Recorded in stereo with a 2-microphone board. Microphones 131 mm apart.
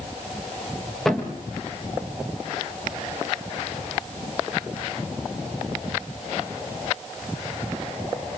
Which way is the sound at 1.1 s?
5° left (ahead or behind).